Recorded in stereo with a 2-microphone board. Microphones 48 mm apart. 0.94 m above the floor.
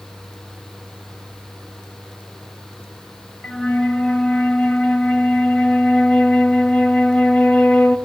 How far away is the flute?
About 0.8 m.